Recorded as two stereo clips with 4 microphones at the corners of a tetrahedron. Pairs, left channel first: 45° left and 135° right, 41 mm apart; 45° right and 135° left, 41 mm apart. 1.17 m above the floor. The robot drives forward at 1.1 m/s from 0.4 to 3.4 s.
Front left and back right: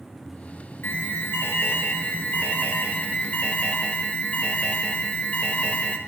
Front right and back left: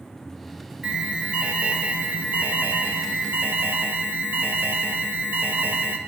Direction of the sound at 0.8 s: 70° left.